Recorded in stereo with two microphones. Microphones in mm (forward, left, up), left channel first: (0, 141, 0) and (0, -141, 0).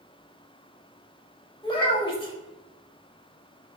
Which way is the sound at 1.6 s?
20° left (ahead or behind).